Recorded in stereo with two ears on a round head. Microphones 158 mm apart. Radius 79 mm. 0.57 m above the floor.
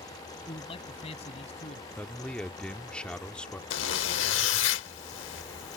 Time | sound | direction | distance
0.5 | a man speaking | 30° left (ahead or behind) | ?
2.0 | a man speaking | 5° left (ahead or behind) | ?
3.7 | a zipper | 80° left | ?